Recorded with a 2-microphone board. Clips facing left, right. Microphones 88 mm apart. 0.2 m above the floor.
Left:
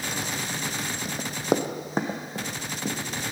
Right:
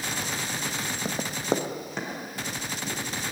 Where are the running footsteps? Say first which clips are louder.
Left 2 dB; 35° right (ahead or behind), 0.6 m; by 3.0 s 60° left (ahead or behind), 1.7 m.